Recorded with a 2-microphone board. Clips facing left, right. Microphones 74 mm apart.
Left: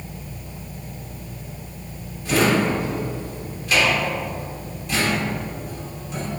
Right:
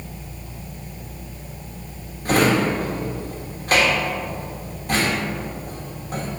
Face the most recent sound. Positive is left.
turn(degrees=-45)  # may be behind; listen again after turning